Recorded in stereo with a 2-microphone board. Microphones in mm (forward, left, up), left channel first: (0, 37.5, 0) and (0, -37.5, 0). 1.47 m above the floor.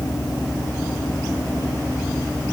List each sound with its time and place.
Only background noise.